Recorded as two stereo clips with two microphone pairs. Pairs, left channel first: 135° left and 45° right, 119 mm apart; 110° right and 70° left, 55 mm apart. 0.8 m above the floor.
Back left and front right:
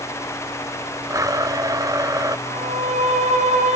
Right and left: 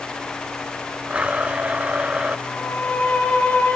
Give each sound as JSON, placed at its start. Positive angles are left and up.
{"t": 1.1, "sound": "a blender", "azimuth_deg": 5, "distance_m": 0.8}
{"t": 2.5, "sound": "a violin", "azimuth_deg": -50, "distance_m": 5.0}